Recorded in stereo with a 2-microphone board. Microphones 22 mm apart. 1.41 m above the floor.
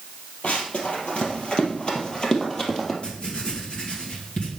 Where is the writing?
50° left (ahead or behind), 2.5 m.